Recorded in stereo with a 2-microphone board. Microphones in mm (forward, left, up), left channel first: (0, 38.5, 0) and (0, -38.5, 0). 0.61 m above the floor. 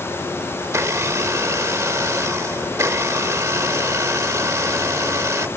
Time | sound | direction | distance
0.6 | a blender | 35° right (ahead or behind) | ?